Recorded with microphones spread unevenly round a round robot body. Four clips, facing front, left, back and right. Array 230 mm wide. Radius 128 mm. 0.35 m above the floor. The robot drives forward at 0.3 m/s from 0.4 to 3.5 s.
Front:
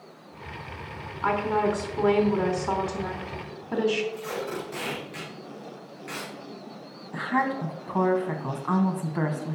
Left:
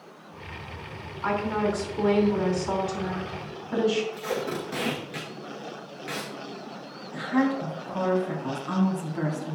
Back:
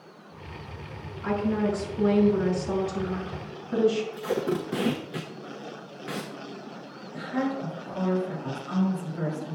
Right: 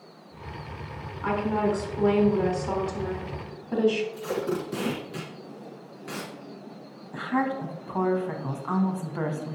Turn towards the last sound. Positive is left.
turn(degrees=-15)